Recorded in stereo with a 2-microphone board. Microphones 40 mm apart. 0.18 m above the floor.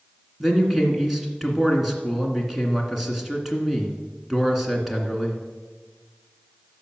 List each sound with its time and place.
0.4 s a man speaking: 10° right (ahead or behind), 2.0 m